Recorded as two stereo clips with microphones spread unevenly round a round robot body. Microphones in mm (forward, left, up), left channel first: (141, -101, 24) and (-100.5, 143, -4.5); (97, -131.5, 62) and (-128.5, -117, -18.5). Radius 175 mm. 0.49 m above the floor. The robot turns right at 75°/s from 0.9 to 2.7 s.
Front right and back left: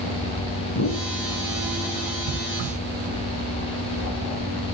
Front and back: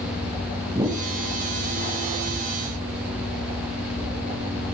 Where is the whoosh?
105° right, 4 m; by 1.1 s 90° right, 4 m.